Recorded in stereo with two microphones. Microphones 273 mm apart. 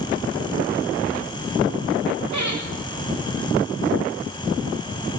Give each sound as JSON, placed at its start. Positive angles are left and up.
{"t": 2.3, "sound": "laughter", "side_deg": -85, "distance_m": 8.0}